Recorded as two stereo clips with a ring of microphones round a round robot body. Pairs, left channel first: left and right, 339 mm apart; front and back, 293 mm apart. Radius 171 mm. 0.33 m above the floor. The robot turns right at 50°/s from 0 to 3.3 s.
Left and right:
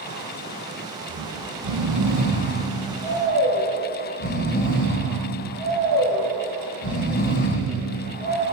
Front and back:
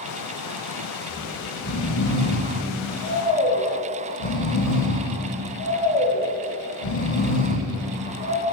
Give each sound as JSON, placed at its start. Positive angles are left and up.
{"t": 1.1, "sound": "snoring", "azimuth_deg": -85, "distance_m": 4.0}